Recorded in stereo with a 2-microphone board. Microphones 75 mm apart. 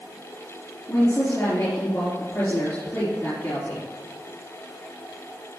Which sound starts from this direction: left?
A woman speaking, at 0.9 s.